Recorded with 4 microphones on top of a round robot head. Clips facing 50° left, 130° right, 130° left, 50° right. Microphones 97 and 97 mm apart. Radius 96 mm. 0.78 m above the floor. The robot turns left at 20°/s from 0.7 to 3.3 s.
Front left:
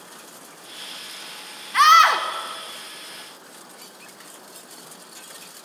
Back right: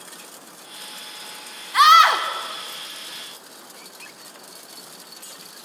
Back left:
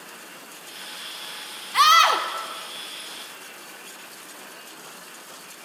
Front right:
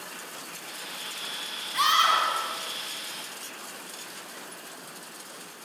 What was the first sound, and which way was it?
A scream, 150° left.